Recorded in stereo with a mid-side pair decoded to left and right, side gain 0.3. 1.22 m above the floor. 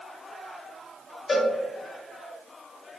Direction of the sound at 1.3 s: 40° left.